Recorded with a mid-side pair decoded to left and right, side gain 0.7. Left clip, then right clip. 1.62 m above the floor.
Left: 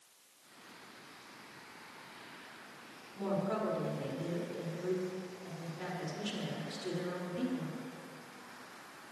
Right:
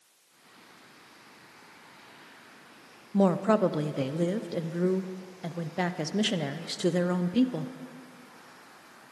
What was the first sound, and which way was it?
A woman speaking, 65° right.